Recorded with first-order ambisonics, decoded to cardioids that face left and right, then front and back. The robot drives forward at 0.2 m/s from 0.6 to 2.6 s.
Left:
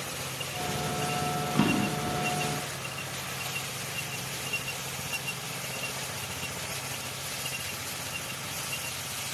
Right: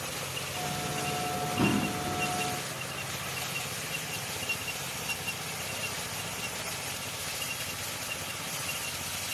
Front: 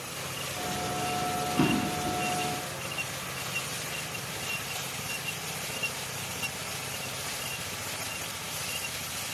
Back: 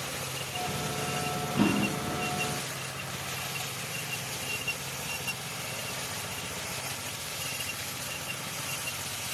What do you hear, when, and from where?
1.6 s a drawer: 105° left, 0.7 m; by 2.2 s 115° left, 0.8 m